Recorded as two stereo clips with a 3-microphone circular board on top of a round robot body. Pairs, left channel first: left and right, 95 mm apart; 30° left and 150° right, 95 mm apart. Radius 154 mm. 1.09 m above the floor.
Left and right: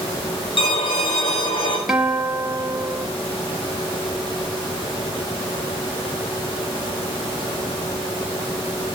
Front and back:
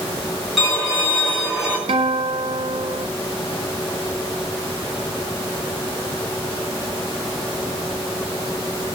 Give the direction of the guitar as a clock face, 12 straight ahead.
6 o'clock.